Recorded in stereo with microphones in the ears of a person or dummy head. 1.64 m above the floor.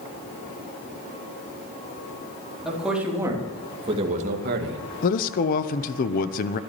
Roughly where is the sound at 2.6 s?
Centre.